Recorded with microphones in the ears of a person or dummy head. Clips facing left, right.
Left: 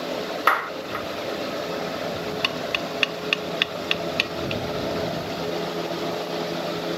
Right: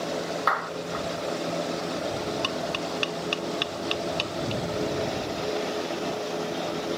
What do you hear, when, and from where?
0.5 s a clap: 45° left (ahead or behind)
2.4 s tapping: 35° left (ahead or behind)